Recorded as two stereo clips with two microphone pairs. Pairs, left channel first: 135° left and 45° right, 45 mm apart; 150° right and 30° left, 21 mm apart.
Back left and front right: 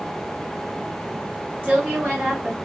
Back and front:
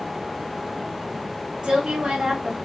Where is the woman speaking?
15° left, 2.5 m.